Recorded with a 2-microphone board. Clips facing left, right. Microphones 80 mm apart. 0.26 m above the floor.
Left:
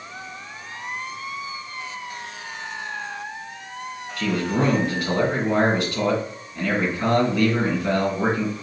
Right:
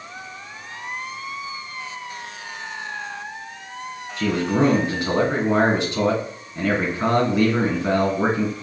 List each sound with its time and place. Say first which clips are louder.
4.2 s a man speaking: right 3 dB; 20° right (ahead or behind), 2 m